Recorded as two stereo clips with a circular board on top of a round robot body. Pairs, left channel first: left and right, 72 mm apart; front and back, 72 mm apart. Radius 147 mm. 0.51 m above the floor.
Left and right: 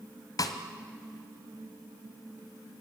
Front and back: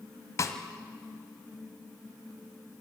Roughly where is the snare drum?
Ahead left.